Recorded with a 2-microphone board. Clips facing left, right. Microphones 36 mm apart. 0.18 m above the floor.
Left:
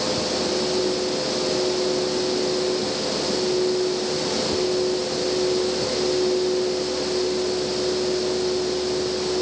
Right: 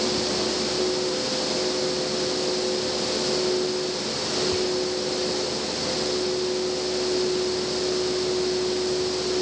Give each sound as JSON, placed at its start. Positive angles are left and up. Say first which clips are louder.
{"t": 4.5, "sound": "whispering", "louder": "left 2 dB", "side_deg": -40, "distance_m": 1.7}